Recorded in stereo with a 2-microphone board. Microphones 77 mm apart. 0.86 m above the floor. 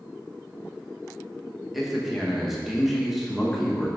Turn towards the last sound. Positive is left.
turn(degrees=-5)  # may be behind; listen again after turning